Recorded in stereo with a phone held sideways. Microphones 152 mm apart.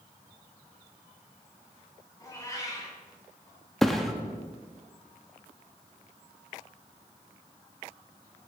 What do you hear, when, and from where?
2.2 s a cat meowing: 20° left (ahead or behind), 2.5 m
3.8 s a thud: centre (ahead or behind), 0.7 m